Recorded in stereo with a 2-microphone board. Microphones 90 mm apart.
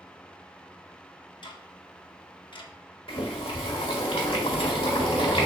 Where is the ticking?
60° left (ahead or behind), 0.6 m.